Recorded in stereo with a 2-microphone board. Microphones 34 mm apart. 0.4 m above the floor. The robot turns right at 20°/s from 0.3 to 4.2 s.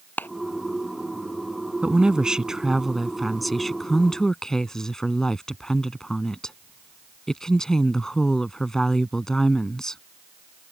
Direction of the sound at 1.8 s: 30° right.